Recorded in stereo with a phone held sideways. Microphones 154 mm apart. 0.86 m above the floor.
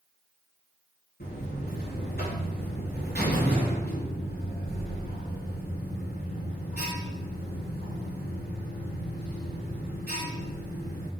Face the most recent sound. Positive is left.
turn(degrees=80)